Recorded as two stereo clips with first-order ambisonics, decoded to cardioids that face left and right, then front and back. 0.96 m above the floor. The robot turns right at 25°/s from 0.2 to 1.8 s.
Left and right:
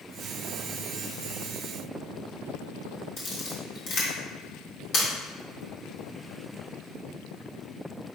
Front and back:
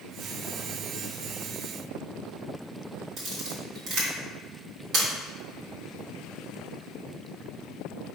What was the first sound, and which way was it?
A camera shutter, 135° left.